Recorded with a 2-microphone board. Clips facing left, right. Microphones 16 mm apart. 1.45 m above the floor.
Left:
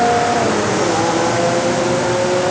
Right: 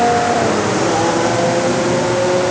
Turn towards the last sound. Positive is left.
No sound to turn to.